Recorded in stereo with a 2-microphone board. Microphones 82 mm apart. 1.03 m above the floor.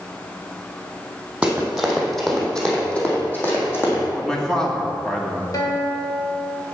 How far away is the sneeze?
No sneeze in this recording.